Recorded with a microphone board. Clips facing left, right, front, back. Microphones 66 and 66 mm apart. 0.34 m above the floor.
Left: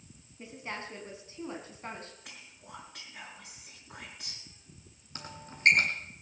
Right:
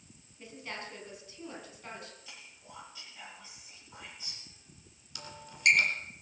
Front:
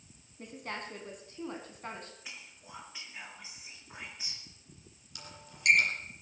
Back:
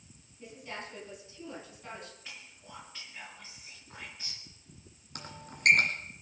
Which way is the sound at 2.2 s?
75° left.